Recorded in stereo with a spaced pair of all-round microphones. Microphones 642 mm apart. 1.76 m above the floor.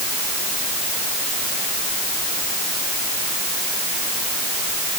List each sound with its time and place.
Only background noise.